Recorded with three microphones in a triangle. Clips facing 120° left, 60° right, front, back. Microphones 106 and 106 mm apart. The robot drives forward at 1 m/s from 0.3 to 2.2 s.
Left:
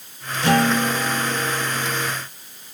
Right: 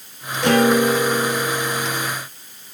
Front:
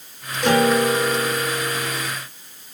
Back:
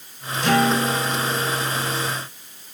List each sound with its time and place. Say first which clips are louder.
0.4 s a guitar: right 3 dB, front 2 dB; 35° right, 2.5 m; by 2.1 s 75° right, 1.5 m